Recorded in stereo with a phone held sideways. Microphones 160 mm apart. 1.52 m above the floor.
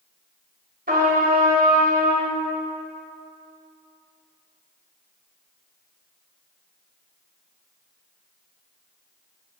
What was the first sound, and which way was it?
A trumpet, 70° right (ahead or behind).